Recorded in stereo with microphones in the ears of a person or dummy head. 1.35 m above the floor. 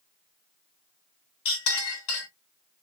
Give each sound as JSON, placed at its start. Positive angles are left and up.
{"t": 1.4, "sound": "a clink", "side_deg": 70, "distance_m": 1.6}